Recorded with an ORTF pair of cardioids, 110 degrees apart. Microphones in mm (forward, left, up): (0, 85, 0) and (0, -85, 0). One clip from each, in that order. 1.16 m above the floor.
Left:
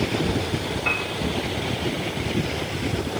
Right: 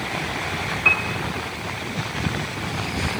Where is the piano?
70° right, 2 m.